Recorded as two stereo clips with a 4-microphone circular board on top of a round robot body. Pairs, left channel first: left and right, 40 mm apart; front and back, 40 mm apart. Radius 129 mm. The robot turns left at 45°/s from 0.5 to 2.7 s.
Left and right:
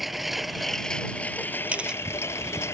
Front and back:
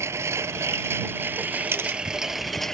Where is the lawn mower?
Straight behind; by 2.8 s 80° left.